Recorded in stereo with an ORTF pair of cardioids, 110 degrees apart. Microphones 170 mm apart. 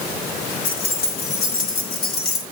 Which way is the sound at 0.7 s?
70° left.